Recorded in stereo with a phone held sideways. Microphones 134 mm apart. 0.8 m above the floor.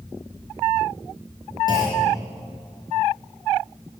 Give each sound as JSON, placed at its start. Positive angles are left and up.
{"t": 1.7, "sound": "a clunk", "side_deg": 35, "distance_m": 5.5}